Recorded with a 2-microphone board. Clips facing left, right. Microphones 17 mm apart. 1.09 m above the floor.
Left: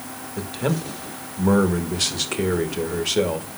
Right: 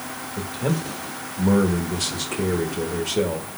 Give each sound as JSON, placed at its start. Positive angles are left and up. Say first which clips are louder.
{"t": 0.4, "sound": "a man speaking", "louder": "left 1 dB", "side_deg": 25, "distance_m": 1.4}